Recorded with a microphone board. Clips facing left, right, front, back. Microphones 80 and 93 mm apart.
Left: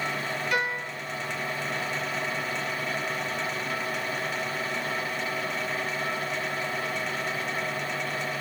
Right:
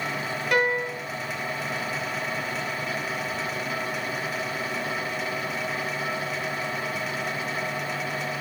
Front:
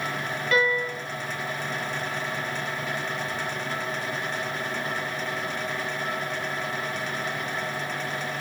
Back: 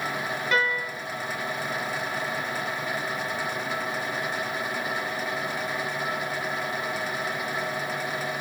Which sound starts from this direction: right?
A piano, at 0.5 s.